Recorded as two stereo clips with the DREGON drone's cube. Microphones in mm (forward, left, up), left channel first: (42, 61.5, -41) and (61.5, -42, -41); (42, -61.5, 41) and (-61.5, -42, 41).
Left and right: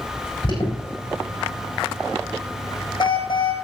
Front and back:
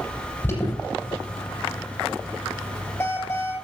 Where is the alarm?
55° left, 7 m.